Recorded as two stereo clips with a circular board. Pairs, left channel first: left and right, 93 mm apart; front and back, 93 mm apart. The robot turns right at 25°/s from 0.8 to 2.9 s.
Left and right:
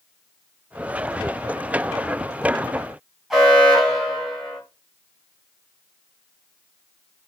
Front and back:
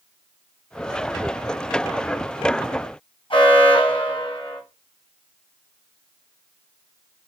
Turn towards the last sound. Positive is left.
turn(degrees=-5)